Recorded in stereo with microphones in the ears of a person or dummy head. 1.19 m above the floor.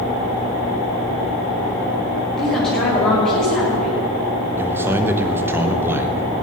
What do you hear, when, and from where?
2.4 s a woman speaking: 5° left (ahead or behind), 5.5 m
4.6 s a man speaking: 15° right (ahead or behind), 1.1 m